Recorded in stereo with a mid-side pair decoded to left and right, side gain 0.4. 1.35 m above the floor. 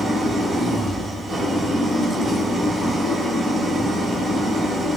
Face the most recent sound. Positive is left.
turn(degrees=-45)